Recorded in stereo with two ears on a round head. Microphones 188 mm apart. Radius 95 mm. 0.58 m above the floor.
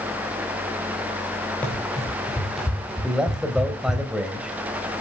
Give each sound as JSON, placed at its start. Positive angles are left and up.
{"t": 1.6, "sound": "running footsteps", "side_deg": 5, "distance_m": 7.5}
{"t": 3.0, "sound": "a man speaking", "side_deg": -5, "distance_m": 3.0}